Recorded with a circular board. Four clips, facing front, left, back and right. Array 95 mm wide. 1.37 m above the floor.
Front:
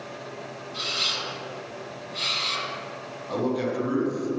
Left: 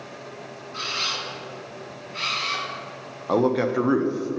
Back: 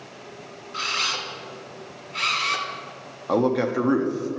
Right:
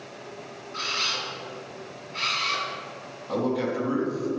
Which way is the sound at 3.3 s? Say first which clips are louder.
Left 5 dB, back 5 dB; 125° left.